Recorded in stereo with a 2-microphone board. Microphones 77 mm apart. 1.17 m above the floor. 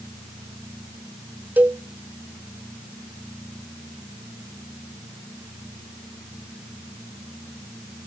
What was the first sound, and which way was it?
A cowbell, 20° right (ahead or behind).